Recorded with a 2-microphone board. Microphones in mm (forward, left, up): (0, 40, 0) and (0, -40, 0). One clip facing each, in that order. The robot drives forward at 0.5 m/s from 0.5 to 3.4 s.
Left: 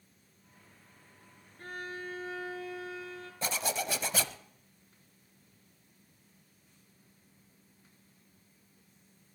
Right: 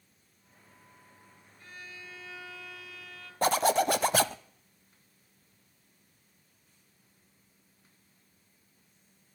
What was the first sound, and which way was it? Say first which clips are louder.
A violin: left 8 dB; 55° left (ahead or behind).